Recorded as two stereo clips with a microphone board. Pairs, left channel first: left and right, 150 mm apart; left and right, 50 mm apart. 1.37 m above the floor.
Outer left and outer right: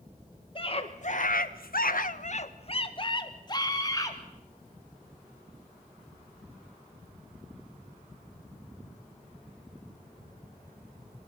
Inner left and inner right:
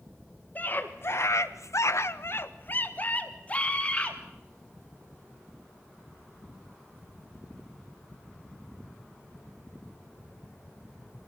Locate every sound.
0.6 s a scream: 35° left (ahead or behind), 1.9 m; by 4.2 s 20° left (ahead or behind), 4 m